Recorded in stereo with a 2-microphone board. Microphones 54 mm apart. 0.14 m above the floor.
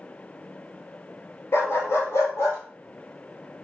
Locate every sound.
1.5 s a dog barking: 60° left (ahead or behind), 0.9 m; by 2.6 s 65° left (ahead or behind), 1.5 m